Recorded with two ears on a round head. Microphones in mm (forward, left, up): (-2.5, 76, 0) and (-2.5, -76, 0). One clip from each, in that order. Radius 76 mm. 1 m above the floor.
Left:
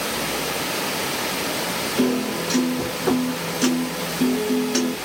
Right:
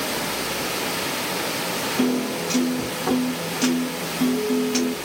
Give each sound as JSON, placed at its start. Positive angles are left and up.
{"t": 2.0, "sound": "a piano", "side_deg": -5, "distance_m": 3.0}